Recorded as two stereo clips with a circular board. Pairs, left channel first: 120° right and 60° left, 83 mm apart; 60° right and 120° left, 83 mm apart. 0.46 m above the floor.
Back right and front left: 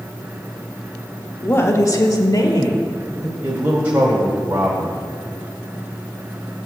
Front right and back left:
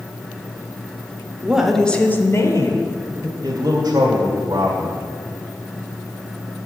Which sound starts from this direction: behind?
A woman speaking, at 1.4 s.